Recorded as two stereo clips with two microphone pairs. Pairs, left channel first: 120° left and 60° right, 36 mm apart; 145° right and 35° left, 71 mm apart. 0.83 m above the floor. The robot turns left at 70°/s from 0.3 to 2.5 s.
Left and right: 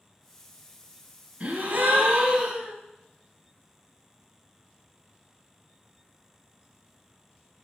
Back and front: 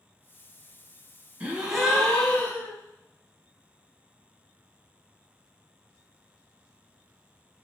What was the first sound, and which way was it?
A gasp, 30° right.